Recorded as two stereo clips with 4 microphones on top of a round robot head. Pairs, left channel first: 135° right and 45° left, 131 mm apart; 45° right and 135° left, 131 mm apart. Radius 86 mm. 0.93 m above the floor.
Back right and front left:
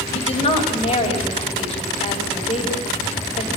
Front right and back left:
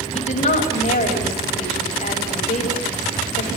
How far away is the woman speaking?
About 6.5 m.